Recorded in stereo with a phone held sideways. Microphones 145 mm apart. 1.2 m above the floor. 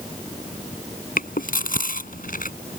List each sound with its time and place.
1.2 s chewing: 75° left (ahead or behind)